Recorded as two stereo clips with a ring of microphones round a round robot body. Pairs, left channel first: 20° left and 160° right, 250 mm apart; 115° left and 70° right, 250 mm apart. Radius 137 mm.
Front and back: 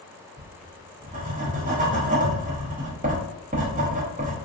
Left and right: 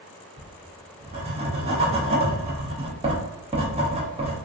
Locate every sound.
0.4 s writing: 120° right, 1.0 m